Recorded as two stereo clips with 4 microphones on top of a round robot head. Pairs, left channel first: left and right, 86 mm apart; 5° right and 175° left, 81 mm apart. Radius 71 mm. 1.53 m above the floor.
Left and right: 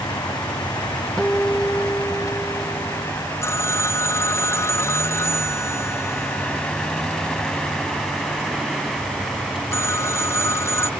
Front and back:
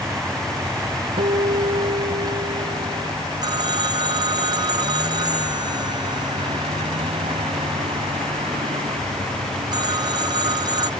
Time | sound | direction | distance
0.0 | a vehicle | 125° left | ?
1.2 | a guitar | 170° left | ?
3.4 | a phone ringing | 145° left | ?